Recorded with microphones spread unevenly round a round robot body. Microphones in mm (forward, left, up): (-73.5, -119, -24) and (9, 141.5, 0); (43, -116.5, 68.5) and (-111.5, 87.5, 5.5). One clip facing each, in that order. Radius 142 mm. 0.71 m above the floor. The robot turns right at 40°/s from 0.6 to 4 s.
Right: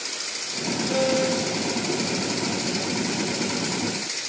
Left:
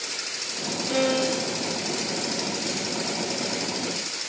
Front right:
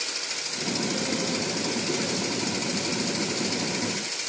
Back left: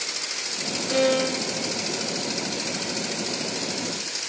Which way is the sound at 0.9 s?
120° left.